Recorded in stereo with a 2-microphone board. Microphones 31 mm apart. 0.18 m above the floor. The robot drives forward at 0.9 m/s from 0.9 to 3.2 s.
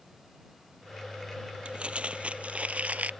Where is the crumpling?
40° right (ahead or behind); by 3.1 s 55° right (ahead or behind).